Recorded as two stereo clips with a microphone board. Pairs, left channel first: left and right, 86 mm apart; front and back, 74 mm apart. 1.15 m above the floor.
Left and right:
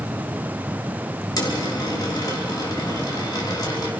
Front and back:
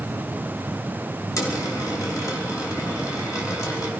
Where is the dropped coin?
45° left, 5.5 m.